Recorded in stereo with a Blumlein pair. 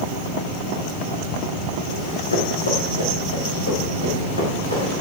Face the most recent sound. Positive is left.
turn(degrees=80)